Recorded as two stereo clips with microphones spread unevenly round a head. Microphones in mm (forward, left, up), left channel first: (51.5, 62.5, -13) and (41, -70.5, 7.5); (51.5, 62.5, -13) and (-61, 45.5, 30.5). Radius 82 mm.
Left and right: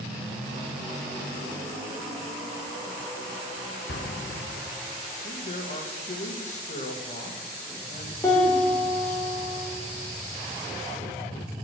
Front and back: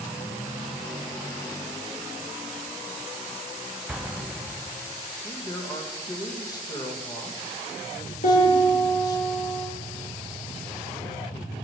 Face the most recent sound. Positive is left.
turn(degrees=15)